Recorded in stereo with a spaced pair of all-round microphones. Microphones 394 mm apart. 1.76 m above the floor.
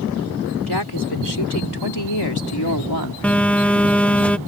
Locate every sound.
0.7 s a woman speaking: 75° left (ahead or behind); by 3.1 s 60° left (ahead or behind)
3.2 s a phone buzzing: 5° left (ahead or behind)